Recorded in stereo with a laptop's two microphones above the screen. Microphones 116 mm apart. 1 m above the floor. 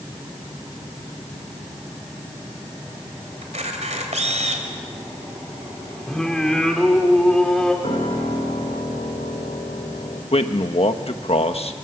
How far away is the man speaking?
About 1.4 m.